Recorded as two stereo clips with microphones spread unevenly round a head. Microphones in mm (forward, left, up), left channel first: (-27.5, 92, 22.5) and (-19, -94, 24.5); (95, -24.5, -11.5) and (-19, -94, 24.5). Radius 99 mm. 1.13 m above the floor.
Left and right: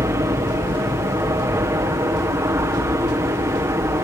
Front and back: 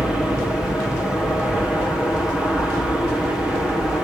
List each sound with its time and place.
0.0 s an aircraft: 35° right